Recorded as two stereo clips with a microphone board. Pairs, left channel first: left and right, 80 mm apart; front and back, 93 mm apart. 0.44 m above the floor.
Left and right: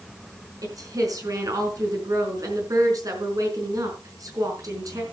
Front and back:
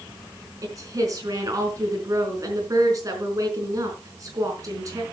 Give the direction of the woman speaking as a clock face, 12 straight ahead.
4 o'clock.